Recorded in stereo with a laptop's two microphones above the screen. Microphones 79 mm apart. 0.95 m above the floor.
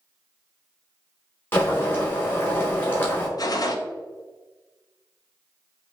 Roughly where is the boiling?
Left.